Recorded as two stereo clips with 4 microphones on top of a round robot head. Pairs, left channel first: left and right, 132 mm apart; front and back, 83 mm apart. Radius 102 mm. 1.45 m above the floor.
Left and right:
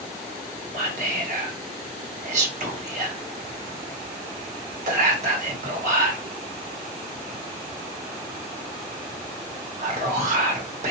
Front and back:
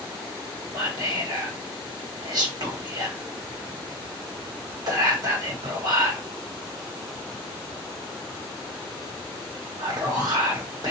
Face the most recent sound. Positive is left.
turn(degrees=-130)